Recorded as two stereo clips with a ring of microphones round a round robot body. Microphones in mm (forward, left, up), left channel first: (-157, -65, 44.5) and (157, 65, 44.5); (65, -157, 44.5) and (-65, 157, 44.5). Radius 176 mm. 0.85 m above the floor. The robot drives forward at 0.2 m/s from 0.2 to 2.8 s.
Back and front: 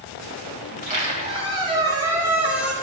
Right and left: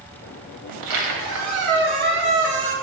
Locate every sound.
0.7 s a squeak: 85° left, 1.1 m; by 2.7 s 110° left, 1.1 m